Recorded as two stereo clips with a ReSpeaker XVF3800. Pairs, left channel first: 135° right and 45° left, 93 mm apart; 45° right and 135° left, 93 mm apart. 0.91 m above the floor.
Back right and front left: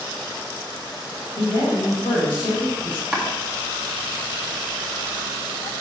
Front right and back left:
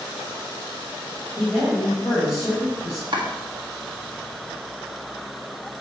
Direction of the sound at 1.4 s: 95° right.